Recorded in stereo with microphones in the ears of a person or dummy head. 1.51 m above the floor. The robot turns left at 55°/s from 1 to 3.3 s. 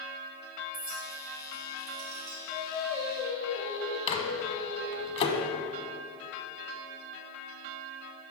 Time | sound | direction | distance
0.7 | a clink | 45° right (ahead or behind) | 1.1 m
2.5 | singing | 170° right | 1.7 m
4.1 | a microwave | 30° left (ahead or behind) | 1.0 m